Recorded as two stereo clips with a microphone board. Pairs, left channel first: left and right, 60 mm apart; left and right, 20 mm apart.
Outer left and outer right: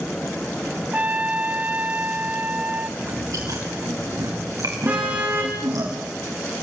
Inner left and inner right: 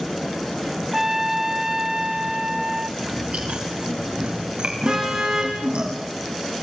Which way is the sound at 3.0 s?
70° right (ahead or behind).